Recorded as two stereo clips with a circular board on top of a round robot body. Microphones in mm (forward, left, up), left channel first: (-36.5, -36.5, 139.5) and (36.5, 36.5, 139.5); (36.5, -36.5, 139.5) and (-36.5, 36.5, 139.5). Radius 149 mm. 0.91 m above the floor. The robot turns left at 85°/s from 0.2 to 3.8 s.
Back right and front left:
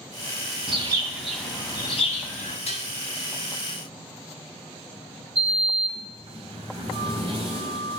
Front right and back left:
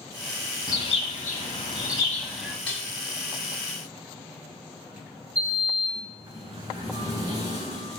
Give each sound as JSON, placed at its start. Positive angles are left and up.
{"t": 0.7, "sound": "a bird", "azimuth_deg": 10, "distance_m": 1.6}
{"t": 2.7, "sound": "dishes clattering", "azimuth_deg": -125, "distance_m": 2.0}
{"t": 5.3, "sound": "a sliding door", "azimuth_deg": 80, "distance_m": 4.0}